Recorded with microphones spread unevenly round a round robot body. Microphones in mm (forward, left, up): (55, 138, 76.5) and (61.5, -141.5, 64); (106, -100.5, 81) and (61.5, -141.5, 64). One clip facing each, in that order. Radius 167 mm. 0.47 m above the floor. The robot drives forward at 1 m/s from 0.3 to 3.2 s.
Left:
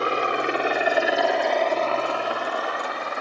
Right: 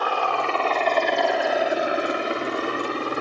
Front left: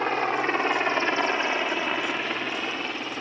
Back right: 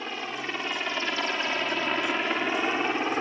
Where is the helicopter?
35° left; by 3.2 s 110° right.